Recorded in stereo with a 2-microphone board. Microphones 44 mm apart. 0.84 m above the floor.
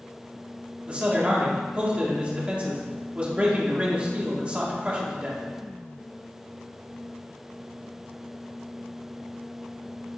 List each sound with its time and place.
0.9 s a man speaking: 25° right (ahead or behind), 1.6 m